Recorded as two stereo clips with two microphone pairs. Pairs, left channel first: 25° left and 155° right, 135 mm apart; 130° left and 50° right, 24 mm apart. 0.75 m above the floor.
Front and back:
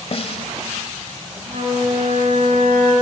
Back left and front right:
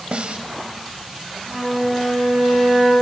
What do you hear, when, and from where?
0.1 s a snare drum: 15° right, 1.4 m
1.5 s a flute: 160° right, 7.5 m